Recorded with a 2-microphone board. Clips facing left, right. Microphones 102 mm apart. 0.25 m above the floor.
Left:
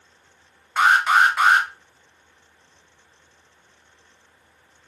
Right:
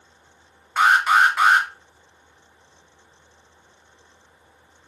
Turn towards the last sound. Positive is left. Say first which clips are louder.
# even
turn(degrees=-5)  # may be behind; listen again after turning